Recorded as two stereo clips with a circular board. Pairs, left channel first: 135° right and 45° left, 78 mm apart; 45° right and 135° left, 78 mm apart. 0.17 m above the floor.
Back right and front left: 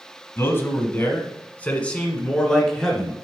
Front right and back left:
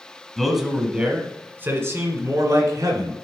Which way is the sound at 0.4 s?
130° right.